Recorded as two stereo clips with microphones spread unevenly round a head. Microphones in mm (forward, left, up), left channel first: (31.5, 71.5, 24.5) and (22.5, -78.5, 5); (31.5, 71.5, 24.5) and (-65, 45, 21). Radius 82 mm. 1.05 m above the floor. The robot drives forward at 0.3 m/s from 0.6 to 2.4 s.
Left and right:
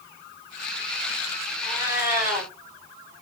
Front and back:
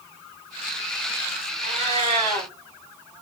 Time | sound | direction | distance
1.6 | a cat meowing | 175° right | 1.8 m